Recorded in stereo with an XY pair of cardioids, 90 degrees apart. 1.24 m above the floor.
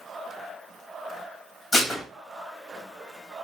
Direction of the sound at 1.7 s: 25° left.